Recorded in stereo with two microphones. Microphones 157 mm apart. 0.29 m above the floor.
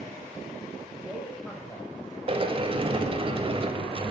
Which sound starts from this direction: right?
A sliding door, at 2.3 s.